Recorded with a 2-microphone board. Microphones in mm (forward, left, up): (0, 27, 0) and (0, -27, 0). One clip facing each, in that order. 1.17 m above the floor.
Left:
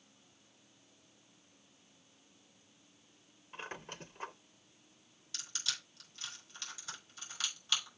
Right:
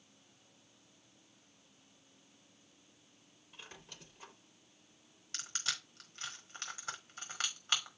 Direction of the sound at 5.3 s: 45° right (ahead or behind).